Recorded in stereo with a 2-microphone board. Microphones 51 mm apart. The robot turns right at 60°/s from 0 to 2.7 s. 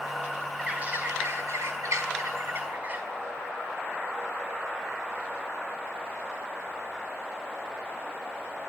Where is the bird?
165° right, 5 m; by 3.0 s 40° right, 5 m.